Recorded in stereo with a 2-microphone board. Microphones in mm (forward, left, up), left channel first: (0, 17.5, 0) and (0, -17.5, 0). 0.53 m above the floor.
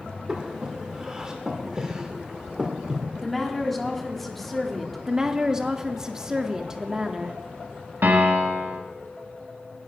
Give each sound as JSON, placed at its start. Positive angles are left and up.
{"t": 0.3, "sound": "breathing", "side_deg": -20, "distance_m": 1.5}
{"t": 3.2, "sound": "a woman speaking", "side_deg": 5, "distance_m": 1.4}
{"t": 5.1, "sound": "a woman speaking", "side_deg": -20, "distance_m": 0.7}
{"t": 8.0, "sound": "a piano", "side_deg": -75, "distance_m": 1.6}